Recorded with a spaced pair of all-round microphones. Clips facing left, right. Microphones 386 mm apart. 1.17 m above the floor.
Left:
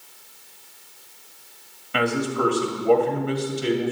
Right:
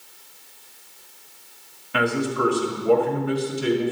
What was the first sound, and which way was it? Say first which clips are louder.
A man speaking: even; 5° left (ahead or behind).